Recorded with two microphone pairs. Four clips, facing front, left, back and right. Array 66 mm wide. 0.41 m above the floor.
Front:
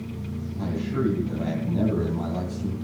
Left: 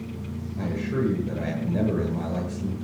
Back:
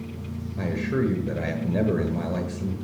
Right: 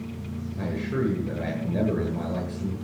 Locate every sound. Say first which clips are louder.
0.6 s a man speaking: left 1 dB, back 1 dB; 165° right, 8.5 m